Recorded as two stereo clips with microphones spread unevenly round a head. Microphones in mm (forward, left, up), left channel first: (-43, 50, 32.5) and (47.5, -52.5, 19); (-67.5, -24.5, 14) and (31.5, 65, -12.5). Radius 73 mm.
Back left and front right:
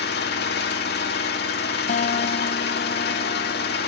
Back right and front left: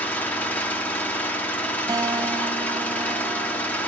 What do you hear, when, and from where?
0.0 s an engine running: 140° left, 2.5 m
1.9 s a guitar: 95° left, 0.7 m